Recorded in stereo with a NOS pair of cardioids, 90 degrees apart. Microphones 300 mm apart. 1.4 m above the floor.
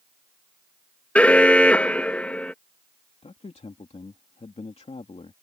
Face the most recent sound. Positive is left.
turn(degrees=25)